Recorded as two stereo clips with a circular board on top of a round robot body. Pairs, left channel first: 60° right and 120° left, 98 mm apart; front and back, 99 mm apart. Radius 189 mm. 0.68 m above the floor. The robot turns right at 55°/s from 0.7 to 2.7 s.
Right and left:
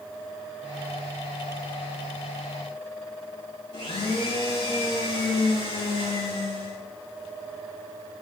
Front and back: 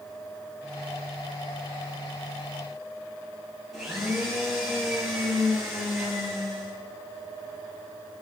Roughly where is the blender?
Right.